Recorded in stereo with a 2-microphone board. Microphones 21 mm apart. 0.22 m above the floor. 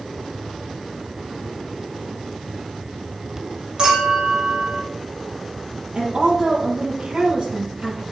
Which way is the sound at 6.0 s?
55° right (ahead or behind).